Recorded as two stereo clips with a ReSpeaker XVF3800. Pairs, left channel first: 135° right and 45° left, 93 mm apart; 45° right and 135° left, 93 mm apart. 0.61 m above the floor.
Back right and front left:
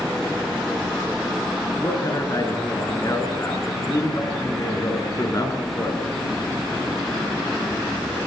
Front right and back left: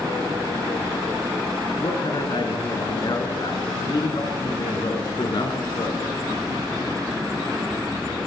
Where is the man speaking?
80° right, 7.5 m.